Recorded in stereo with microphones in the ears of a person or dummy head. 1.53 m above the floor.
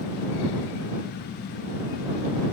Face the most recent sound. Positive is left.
No sound to turn to.